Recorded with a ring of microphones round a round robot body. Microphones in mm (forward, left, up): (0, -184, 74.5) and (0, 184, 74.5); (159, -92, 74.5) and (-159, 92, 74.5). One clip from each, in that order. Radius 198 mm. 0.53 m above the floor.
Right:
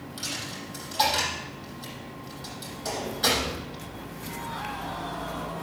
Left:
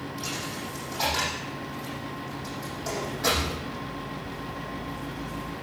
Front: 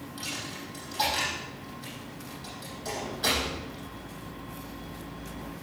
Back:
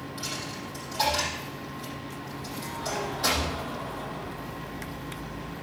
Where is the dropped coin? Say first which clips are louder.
Right 1 dB, back 1 dB; 120° right, 6.5 m.